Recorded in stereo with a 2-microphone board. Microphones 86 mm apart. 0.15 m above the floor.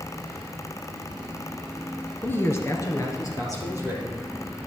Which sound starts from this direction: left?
A man speaking, at 2.2 s.